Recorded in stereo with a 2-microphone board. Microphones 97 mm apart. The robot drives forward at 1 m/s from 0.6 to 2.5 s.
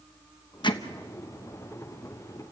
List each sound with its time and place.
0.6 s hammering: 50° left (ahead or behind), 1.0 m